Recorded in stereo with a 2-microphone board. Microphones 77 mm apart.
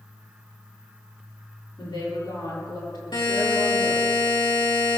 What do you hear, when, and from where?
1.8 s a woman speaking: 70° left (ahead or behind), 7 m
3.1 s a buzzer: 90° left, 7.5 m